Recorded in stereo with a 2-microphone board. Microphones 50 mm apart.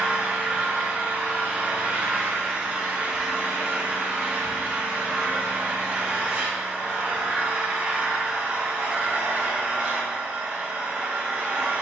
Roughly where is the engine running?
Right.